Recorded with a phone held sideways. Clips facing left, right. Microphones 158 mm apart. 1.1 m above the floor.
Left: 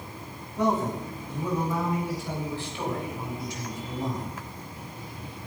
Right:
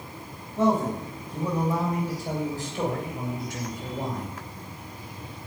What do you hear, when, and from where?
0.6 s a man speaking: 25° right (ahead or behind), 8 m; by 4.4 s 65° right (ahead or behind), 6 m